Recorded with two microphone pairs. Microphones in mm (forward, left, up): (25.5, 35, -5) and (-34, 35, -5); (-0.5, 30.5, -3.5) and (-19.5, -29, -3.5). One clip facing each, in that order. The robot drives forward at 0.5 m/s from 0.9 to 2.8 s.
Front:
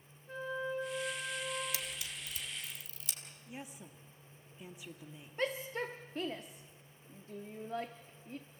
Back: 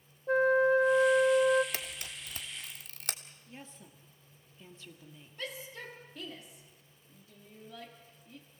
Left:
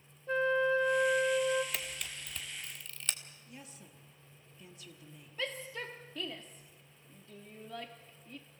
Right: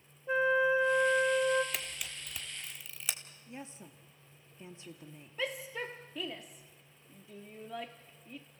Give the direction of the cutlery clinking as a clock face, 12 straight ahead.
I don't hear cutlery clinking.